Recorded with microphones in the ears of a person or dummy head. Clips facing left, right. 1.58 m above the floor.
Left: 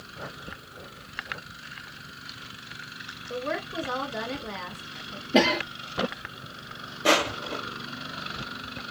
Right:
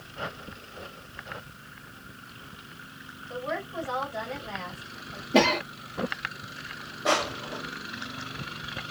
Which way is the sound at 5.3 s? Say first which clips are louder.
Even; 5° left (ahead or behind).